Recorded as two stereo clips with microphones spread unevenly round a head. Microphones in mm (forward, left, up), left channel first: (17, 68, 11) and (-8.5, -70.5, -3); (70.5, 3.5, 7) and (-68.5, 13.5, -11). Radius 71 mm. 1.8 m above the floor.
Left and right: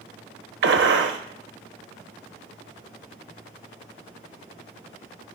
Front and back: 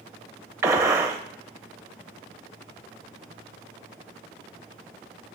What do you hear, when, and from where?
0.6 s a gunshot: 110° right, 0.9 m